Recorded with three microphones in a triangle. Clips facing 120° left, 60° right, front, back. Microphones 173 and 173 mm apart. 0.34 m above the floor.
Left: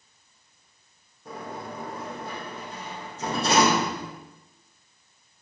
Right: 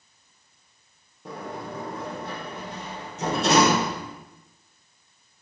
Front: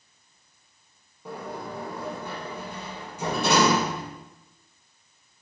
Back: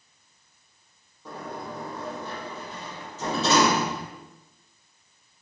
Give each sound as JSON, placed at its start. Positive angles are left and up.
{"t": 1.2, "sound": "a sliding door", "azimuth_deg": -75, "distance_m": 6.0}